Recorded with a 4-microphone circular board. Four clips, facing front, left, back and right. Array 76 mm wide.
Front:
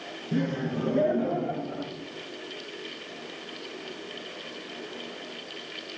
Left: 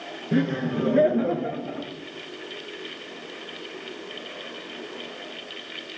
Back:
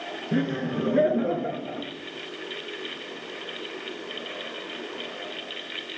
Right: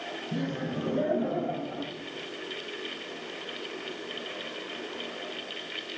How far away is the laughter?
About 5 m.